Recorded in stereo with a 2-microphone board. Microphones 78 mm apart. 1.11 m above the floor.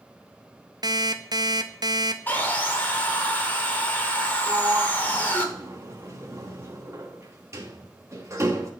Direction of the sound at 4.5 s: 40° right (ahead or behind).